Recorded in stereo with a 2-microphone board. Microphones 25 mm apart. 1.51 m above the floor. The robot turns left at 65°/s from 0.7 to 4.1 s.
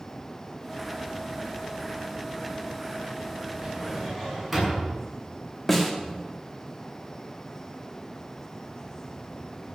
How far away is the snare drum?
About 2.0 m.